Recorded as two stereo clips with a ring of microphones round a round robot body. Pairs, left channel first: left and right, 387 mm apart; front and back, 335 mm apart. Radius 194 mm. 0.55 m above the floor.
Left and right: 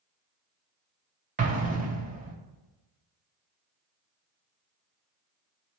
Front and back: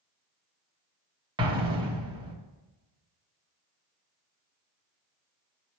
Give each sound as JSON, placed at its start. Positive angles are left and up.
{"t": 1.4, "sound": "an explosion", "azimuth_deg": -125, "distance_m": 0.9}